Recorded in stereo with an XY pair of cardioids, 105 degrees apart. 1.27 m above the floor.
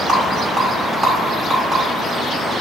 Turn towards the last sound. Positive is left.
turn(degrees=-35)